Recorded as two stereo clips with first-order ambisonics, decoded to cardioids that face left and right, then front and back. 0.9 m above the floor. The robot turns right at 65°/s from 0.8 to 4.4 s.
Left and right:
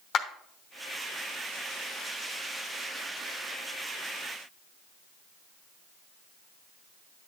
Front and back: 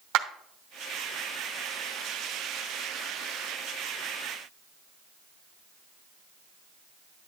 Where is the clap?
145° left, 0.9 m.